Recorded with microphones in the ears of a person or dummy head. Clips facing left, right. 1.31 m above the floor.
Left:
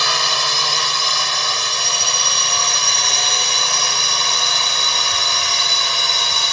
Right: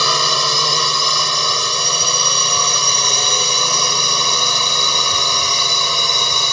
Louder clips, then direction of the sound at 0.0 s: Right 3 dB; 80° right.